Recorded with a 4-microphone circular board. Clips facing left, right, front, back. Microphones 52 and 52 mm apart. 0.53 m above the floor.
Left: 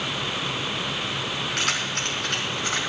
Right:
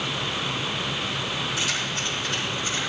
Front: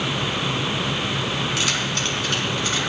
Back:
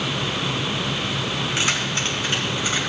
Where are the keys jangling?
115° left, 3.5 m; by 2.8 s 105° left, 3 m.